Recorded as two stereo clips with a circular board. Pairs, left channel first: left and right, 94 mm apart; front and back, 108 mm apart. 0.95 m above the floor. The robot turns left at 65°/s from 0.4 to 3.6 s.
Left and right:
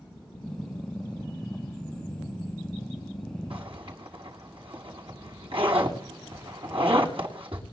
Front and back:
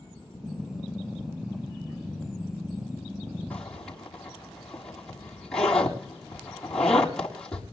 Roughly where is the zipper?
Right.